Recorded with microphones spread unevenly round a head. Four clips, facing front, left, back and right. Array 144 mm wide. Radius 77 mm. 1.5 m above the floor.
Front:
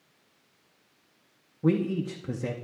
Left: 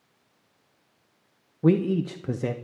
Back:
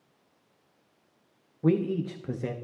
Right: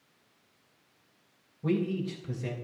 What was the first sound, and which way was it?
A man speaking, 85° left.